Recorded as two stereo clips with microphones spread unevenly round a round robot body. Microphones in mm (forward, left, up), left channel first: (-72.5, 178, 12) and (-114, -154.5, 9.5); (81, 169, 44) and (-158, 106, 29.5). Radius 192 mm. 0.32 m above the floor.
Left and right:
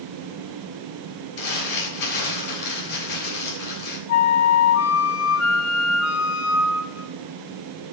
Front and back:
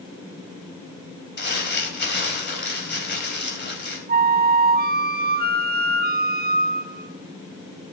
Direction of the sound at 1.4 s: 60° left.